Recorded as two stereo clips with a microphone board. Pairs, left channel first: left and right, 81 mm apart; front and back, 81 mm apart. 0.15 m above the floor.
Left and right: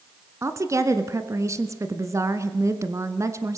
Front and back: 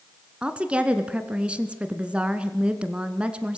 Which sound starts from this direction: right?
A woman speaking, at 0.4 s.